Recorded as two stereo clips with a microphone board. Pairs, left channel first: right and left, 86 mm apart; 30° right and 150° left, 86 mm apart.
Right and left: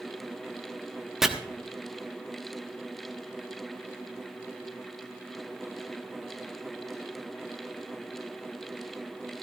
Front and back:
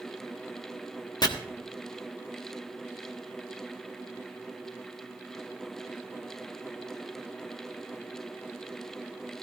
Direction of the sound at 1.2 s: 5° left.